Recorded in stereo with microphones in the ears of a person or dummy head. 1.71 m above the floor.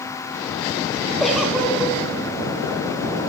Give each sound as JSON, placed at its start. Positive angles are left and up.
{"t": 1.2, "sound": "a giggle", "side_deg": 5, "distance_m": 1.6}